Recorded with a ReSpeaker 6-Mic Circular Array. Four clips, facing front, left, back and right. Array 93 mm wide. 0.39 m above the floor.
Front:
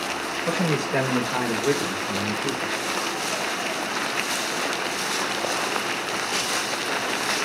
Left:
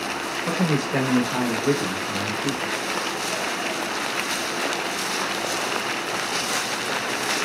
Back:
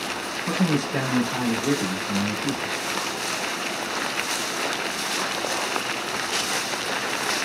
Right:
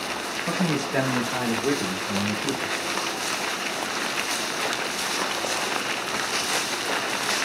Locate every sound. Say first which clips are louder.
0.5 s a man speaking: left 2 dB, back 1 dB; 35° left, 1.4 m; by 2.7 s 55° right, 1.1 m